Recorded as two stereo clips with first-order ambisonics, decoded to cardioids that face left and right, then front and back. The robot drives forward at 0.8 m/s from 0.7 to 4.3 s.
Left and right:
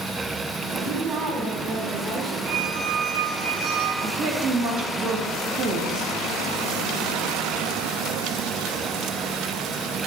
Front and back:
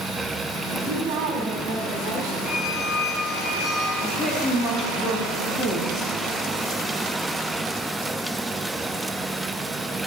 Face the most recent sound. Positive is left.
turn(degrees=-120)